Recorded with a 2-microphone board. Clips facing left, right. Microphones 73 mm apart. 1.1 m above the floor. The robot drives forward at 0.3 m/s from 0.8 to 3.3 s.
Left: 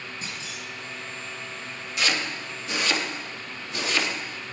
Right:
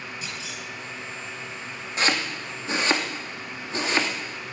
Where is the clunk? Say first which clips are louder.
Right 1 dB; 40° left (ahead or behind), 3.5 m.